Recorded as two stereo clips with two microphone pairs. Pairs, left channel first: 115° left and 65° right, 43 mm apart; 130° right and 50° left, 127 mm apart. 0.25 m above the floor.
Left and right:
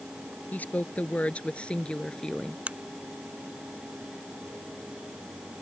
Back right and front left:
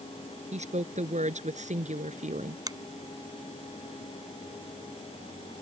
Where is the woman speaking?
65° left; by 2.6 s 40° left.